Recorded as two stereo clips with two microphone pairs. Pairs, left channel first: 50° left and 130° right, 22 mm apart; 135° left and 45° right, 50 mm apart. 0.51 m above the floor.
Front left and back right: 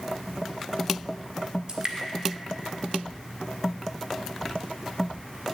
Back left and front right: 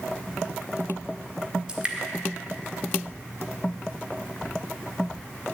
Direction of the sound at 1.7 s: 100° right.